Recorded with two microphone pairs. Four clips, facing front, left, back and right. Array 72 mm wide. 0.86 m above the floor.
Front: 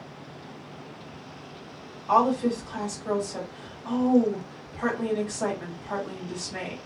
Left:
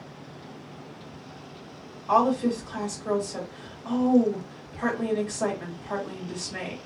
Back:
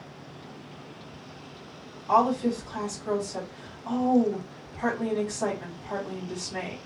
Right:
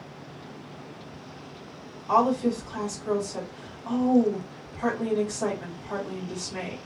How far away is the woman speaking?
About 1.6 m.